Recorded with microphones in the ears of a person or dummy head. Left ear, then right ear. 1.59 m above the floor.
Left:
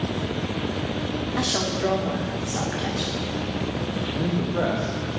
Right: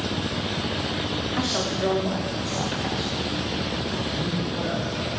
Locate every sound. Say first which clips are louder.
1.4 s a woman speaking: left 2 dB; 5° right (ahead or behind), 0.6 m
4.1 s a man speaking: left 2 dB; 35° left (ahead or behind), 0.6 m